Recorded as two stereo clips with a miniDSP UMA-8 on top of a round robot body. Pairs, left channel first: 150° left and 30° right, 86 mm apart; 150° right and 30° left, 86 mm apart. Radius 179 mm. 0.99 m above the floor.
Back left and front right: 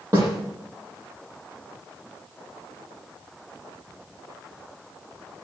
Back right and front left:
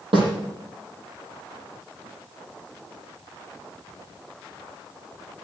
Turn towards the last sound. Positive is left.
turn(degrees=30)